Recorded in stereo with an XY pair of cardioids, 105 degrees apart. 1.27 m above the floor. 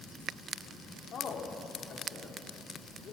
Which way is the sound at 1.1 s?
55° left.